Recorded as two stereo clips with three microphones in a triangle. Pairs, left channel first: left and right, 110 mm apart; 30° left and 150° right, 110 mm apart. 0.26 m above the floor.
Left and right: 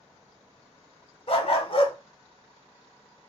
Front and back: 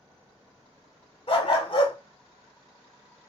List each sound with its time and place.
1.3 s a dog barking: 60° left, 0.8 m